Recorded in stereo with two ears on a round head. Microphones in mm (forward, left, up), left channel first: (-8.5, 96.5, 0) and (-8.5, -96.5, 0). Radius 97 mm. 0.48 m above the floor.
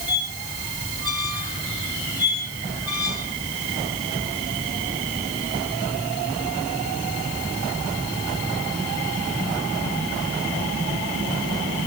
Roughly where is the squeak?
Centre.